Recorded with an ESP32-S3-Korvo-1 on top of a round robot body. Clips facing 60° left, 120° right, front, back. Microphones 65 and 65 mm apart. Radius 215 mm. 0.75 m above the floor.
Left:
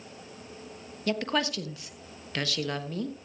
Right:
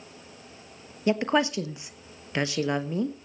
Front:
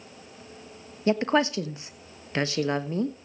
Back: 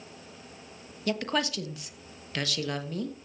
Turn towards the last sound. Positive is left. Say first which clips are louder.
# right 5 dB, front 7 dB
turn(degrees=-55)